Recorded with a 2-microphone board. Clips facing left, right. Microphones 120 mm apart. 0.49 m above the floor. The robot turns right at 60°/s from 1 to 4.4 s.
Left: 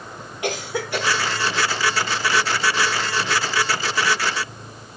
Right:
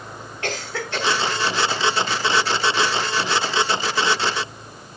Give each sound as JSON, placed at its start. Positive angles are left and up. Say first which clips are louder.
{"t": 0.4, "sound": "a cough", "louder": "left 3 dB", "side_deg": 15, "distance_m": 2.5}